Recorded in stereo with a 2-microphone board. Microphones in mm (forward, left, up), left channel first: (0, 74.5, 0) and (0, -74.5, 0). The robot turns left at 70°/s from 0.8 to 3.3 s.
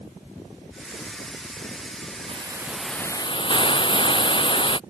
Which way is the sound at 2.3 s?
140° right.